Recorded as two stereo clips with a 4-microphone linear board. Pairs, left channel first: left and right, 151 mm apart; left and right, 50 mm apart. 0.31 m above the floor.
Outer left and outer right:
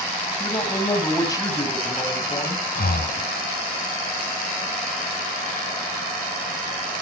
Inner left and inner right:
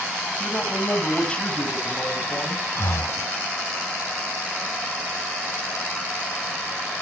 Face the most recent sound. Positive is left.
turn(degrees=70)  # may be behind; listen again after turning